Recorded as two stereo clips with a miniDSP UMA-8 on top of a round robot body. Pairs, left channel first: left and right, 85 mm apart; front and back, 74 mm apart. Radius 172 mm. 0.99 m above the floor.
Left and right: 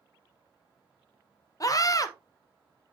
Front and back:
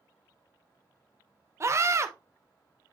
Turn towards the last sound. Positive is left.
turn(degrees=135)